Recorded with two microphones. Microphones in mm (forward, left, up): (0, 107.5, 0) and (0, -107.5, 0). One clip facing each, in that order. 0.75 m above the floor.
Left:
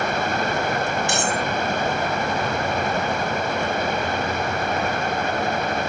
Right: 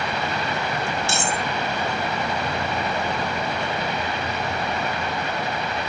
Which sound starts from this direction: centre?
Cutlery clinking, at 1.1 s.